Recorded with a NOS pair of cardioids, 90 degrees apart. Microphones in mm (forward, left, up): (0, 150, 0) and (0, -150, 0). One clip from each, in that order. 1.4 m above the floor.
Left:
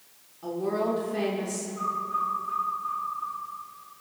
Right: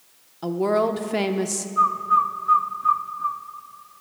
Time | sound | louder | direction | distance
0.4 | a woman speaking | right 7 dB | 65° right | 0.9 m
1.8 | a bird | right 11 dB | 55° right | 0.7 m